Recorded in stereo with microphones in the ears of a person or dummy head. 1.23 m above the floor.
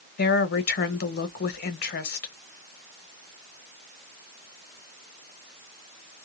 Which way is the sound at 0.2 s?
50° left (ahead or behind).